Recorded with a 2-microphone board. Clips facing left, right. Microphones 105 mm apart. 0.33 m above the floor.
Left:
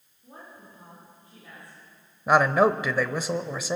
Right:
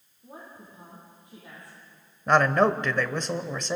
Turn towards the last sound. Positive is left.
turn(degrees=10)  # may be behind; listen again after turning